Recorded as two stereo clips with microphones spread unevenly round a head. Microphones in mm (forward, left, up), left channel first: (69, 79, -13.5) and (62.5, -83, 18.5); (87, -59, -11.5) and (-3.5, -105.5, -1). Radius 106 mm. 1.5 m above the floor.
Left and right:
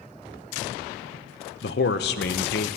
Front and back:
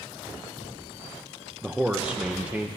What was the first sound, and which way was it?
A man speaking, 125° left.